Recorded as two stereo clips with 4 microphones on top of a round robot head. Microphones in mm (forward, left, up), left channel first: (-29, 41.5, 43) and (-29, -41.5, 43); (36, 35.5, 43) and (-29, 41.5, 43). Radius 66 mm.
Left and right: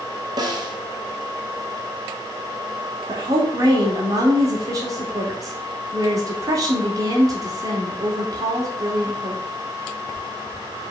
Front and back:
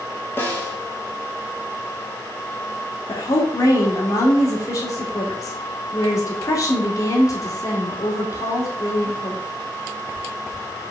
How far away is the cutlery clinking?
I don't hear cutlery clinking.